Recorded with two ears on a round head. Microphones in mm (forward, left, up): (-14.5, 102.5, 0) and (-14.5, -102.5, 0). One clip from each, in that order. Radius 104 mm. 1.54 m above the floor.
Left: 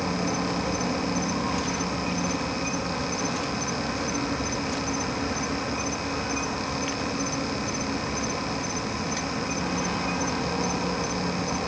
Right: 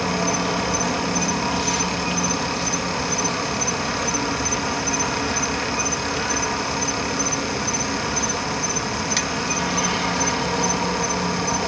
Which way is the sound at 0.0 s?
70° right (ahead or behind).